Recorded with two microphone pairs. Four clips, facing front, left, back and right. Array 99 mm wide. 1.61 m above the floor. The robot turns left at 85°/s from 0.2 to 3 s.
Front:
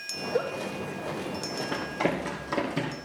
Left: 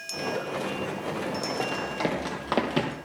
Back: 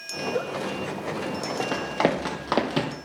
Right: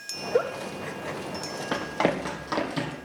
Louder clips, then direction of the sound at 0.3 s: Right 7 dB, even; 80° right.